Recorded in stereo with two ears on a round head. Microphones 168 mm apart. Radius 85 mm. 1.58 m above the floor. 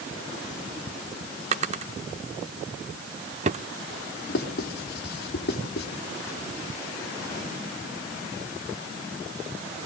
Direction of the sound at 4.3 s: 60° left (ahead or behind).